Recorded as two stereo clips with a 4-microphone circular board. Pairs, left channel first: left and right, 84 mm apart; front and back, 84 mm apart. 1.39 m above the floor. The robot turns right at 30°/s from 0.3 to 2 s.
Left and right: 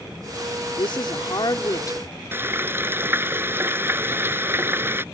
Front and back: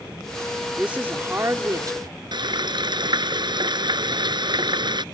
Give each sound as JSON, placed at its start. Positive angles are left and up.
{"t": 0.8, "sound": "a woman speaking", "azimuth_deg": 105}
{"t": 2.3, "sound": "frying", "azimuth_deg": -155}